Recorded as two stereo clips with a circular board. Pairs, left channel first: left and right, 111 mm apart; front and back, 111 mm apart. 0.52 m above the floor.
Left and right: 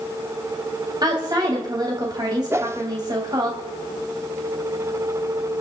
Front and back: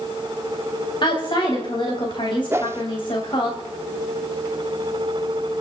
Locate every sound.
1.0 s a woman speaking: 40° right, 3 m
2.5 s a whoosh: 135° right, 0.8 m